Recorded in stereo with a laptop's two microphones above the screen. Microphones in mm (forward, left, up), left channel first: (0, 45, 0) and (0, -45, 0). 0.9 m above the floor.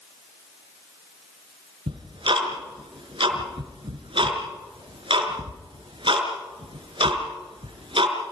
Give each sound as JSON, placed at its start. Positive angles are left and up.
{"t": 1.9, "sound": "ticking", "side_deg": -75, "distance_m": 4.5}